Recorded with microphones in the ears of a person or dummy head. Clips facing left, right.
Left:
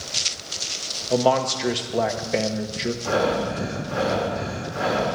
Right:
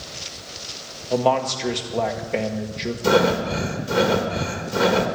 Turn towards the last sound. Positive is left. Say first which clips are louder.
# right 5 dB
turn(degrees=-75)  # may be behind; listen again after turning